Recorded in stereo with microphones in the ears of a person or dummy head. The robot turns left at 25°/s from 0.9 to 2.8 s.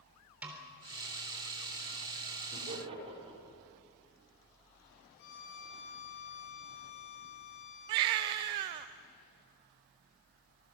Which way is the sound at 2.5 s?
40° right (ahead or behind).